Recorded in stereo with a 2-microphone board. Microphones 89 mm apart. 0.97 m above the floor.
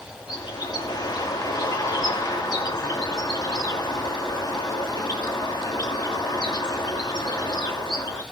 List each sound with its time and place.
0.3 s a bird: 55° left (ahead or behind), 2.5 m